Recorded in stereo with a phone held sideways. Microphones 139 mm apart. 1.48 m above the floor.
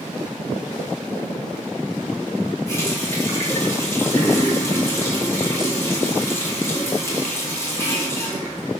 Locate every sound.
2.7 s a running tap: 20° left (ahead or behind), 2 m